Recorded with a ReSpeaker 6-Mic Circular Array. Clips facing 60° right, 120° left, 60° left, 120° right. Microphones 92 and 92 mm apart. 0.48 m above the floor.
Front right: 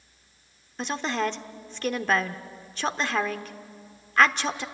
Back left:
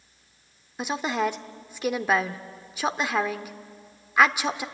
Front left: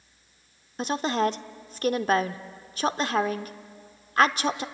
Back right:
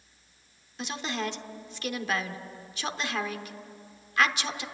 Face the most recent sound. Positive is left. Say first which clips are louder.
# back left 1 dB, front left 8 dB
turn(degrees=45)